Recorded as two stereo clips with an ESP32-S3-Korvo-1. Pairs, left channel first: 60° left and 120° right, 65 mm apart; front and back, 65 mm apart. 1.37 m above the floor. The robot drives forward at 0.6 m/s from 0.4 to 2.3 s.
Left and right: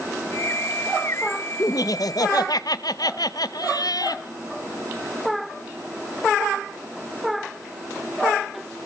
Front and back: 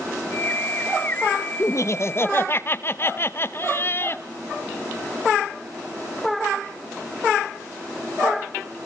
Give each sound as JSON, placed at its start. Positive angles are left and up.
{"t": 1.6, "sound": "laughter", "azimuth_deg": 35, "distance_m": 1.3}